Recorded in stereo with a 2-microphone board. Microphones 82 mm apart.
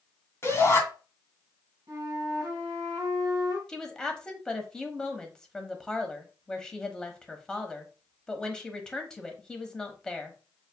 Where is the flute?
45° right (ahead or behind), 2.5 m.